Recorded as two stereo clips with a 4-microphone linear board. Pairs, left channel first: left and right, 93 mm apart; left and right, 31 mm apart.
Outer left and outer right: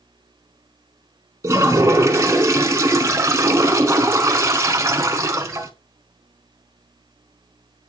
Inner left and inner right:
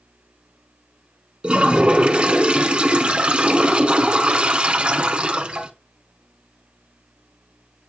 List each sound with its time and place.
1.4 s a toilet flushing: 35° right (ahead or behind), 0.8 m